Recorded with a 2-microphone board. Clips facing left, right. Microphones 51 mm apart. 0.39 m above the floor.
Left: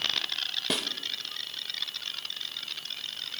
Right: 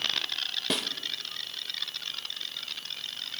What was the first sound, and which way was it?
A snare drum, centre (ahead or behind).